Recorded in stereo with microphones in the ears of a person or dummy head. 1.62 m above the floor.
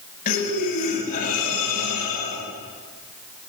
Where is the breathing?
45° left (ahead or behind), 10 m.